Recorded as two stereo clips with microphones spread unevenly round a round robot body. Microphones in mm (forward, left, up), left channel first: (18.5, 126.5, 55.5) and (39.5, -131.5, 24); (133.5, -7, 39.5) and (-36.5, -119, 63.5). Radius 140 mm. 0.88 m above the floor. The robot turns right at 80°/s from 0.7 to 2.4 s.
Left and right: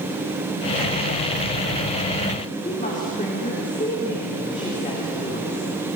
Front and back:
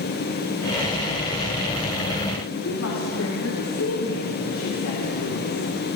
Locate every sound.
2.6 s a woman speaking: 30° left, 3 m